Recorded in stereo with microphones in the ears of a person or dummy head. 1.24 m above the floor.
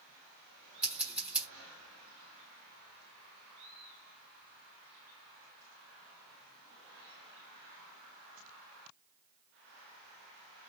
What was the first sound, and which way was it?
Scissors, 5° right (ahead or behind).